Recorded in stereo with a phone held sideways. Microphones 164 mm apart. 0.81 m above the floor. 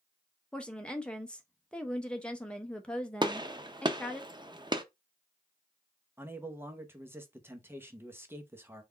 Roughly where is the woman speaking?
Centre.